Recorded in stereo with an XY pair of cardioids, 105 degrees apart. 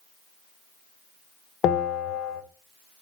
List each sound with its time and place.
1.6 s a bell: 60° left, 0.7 m